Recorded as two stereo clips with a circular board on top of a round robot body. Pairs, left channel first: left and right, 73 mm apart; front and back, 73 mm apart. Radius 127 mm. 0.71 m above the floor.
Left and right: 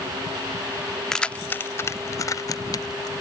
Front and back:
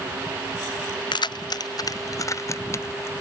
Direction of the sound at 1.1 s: 5° left.